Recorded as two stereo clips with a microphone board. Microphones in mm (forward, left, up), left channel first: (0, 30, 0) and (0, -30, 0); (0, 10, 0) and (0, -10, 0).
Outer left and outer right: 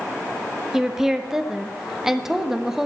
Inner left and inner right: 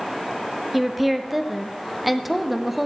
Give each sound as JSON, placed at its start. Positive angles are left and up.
{"t": 0.7, "sound": "a woman speaking", "side_deg": -10, "distance_m": 1.3}